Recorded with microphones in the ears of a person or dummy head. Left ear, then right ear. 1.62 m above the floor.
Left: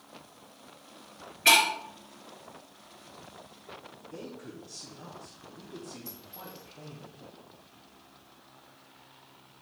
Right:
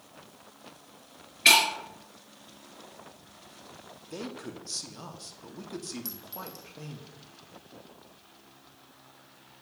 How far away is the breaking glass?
About 2.5 m.